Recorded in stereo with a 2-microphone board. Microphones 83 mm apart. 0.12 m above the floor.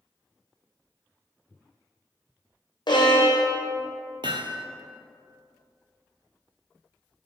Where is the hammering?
75° right (ahead or behind), 0.7 m.